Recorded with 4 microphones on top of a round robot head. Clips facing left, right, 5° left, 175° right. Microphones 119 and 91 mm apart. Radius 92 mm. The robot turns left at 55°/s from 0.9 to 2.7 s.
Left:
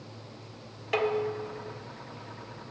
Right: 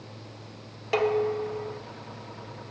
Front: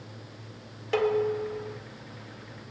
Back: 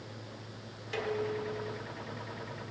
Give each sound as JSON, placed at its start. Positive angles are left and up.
{"t": 0.9, "sound": "dishes clattering", "azimuth_deg": -35, "distance_m": 1.2}